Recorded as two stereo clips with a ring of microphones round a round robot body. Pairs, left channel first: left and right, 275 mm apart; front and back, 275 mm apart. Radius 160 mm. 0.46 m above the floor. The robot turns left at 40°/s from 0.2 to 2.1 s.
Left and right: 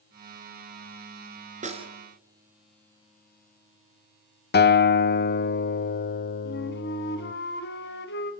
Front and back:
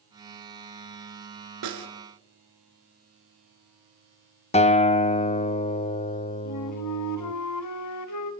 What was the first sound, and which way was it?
A snare drum, 155° right.